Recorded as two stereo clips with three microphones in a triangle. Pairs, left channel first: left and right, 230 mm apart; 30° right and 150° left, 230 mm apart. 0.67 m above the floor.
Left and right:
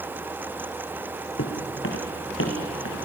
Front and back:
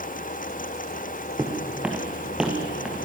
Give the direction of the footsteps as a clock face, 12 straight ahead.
10 o'clock.